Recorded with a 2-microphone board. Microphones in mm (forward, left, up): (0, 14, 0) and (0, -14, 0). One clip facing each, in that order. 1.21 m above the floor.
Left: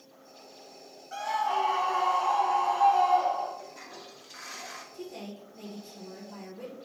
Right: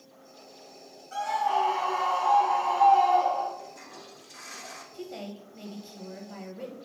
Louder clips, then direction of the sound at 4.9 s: Right 2 dB; 35° right (ahead or behind).